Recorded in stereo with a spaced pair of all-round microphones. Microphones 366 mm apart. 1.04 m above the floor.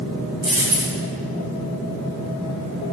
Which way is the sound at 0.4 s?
60° right (ahead or behind).